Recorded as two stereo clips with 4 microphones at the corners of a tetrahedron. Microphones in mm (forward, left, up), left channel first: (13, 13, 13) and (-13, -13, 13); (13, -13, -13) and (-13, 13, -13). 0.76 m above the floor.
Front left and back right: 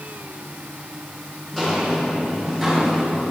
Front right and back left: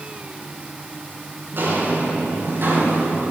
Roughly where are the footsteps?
Behind left.